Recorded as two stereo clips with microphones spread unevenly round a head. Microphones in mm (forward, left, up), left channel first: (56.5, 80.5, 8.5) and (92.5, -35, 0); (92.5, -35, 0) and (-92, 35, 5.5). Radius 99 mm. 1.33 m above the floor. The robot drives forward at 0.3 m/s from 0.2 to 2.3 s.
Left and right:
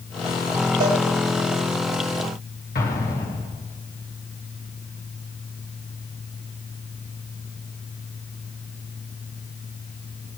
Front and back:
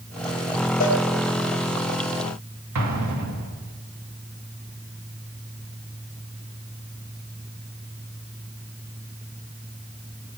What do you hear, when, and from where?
0.8 s a cowbell: 70° right, 4.5 m
2.8 s an explosion: 155° left, 2.5 m